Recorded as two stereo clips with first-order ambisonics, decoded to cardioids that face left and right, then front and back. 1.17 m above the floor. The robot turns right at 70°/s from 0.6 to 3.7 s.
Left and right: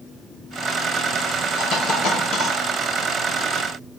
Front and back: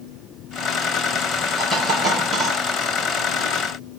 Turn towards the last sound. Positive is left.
turn(degrees=-140)